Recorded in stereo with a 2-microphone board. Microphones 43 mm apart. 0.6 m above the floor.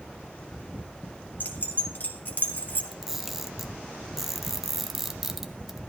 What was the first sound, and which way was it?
Keys jangling, 45° left (ahead or behind).